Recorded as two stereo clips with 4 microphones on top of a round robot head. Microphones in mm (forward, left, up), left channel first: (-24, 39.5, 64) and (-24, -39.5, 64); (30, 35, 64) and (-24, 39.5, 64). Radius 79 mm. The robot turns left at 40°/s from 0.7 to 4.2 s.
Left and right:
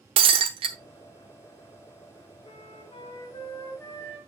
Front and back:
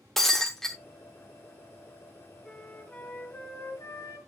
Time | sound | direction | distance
0.2 | breaking glass | 95° right | 0.7 m
2.4 | a flute | 80° left | 2.5 m